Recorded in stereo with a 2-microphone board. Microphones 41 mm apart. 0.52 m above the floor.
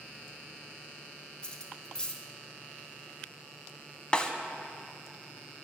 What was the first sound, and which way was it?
Cutlery clinking, 20° left (ahead or behind).